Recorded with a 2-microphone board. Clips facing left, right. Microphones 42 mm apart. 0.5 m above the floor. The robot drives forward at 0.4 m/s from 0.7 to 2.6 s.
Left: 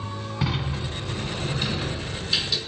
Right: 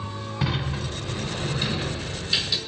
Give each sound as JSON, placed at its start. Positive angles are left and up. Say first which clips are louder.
{"t": 0.4, "sound": "a sliding door", "louder": "right 1 dB", "side_deg": 5, "distance_m": 1.3}